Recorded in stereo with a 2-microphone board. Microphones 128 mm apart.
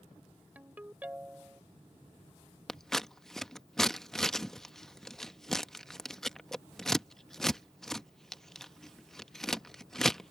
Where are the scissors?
5° left (ahead or behind).